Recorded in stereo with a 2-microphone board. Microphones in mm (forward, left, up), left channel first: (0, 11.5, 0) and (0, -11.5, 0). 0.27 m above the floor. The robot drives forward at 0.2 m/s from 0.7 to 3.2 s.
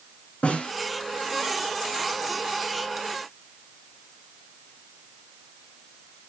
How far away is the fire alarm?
No fire alarm in this recording.